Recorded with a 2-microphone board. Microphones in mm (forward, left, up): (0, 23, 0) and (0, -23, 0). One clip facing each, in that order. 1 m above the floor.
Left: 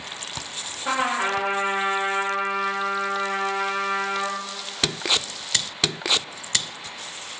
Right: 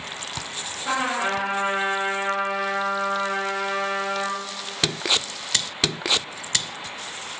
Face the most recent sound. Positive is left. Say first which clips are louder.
# left 1 dB
turn(degrees=20)  # may be behind; listen again after turning